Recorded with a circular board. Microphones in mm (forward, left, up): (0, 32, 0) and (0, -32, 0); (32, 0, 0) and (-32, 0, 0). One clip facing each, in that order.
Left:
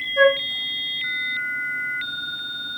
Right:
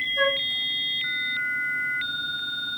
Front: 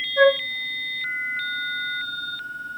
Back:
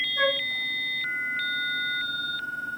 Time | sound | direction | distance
0.2 | a flute | 45° left | 3 m